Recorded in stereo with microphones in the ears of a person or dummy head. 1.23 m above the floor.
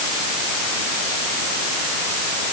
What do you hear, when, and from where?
Only background noise.